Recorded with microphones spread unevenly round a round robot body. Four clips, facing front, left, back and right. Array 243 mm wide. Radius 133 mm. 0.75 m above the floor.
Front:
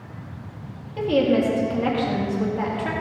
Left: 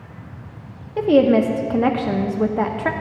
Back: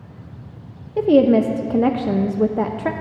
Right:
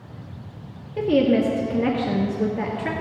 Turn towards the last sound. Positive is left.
turn(degrees=160)